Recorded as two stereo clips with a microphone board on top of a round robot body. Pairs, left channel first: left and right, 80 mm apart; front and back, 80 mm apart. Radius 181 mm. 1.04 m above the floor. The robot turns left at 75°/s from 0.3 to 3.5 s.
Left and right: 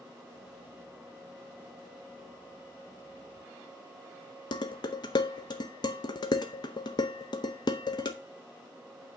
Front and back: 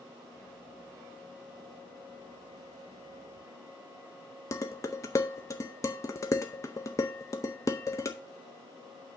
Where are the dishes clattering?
55° left, 0.6 m.